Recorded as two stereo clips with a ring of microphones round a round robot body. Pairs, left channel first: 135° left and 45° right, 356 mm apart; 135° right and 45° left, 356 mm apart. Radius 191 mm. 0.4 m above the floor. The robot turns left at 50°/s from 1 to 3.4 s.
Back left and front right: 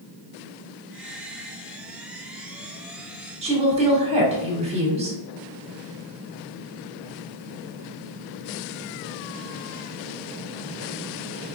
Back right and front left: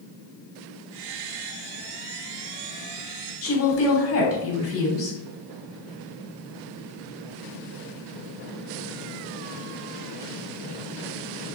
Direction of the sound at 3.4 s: 110° right.